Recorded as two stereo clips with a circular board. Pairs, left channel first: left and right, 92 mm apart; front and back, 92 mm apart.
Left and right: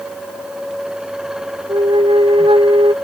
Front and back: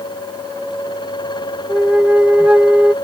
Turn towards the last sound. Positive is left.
turn(degrees=-105)